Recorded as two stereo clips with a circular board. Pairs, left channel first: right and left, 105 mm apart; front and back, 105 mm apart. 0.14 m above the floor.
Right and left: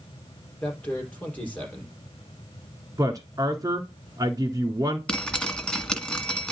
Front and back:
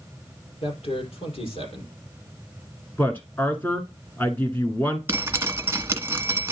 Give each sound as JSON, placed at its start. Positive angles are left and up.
{"t": 0.6, "sound": "a man speaking", "azimuth_deg": -15, "distance_m": 4.0}
{"t": 3.0, "sound": "a woman speaking", "azimuth_deg": 65, "distance_m": 1.4}
{"t": 5.1, "sound": "dripping", "azimuth_deg": -160, "distance_m": 1.5}